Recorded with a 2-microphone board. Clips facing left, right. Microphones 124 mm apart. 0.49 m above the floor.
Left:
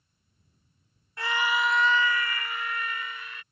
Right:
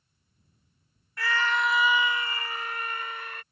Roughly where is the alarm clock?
I don't hear an alarm clock.